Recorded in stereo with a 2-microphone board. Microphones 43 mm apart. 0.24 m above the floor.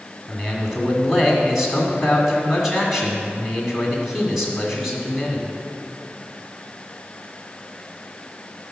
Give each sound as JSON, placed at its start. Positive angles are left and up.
{"t": 0.3, "sound": "a man speaking", "side_deg": -5, "distance_m": 2.0}